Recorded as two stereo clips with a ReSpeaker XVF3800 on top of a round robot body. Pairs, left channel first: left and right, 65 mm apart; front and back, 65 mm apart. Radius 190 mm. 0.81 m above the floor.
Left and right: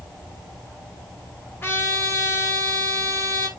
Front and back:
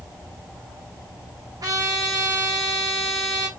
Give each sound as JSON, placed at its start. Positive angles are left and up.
{"t": 1.6, "sound": "a trumpet", "azimuth_deg": 150, "distance_m": 4.5}